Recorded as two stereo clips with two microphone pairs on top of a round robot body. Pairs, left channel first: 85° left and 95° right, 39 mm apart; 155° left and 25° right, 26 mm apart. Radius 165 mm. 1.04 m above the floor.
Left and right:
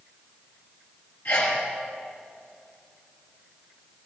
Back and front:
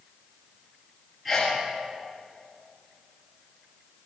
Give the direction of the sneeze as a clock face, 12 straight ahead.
10 o'clock.